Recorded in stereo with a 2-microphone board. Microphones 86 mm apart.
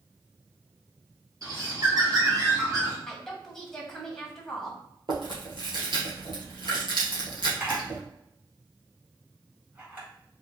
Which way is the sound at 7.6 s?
25° right (ahead or behind).